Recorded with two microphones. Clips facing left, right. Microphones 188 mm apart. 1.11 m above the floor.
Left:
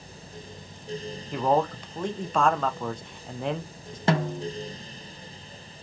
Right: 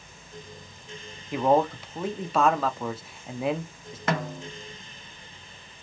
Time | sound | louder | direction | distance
1.3 | a man speaking | right 2 dB | 5° right (ahead or behind) | 0.6 m
4.1 | a snare drum | left 4 dB | 30° left (ahead or behind) | 0.5 m